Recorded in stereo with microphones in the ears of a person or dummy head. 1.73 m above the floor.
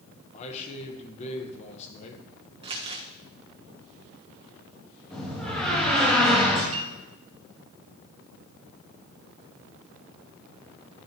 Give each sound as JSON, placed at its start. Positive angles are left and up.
{"t": 0.3, "sound": "a man speaking", "side_deg": 35, "distance_m": 1.1}
{"t": 2.6, "sound": "crumpling", "side_deg": -30, "distance_m": 1.3}
{"t": 5.1, "sound": "a door slam", "side_deg": 5, "distance_m": 2.5}
{"t": 6.7, "sound": "a piano", "side_deg": -35, "distance_m": 2.0}